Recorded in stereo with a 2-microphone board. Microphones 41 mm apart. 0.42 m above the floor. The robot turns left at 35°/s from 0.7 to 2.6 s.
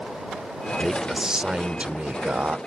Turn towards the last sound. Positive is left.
turn(degrees=-70)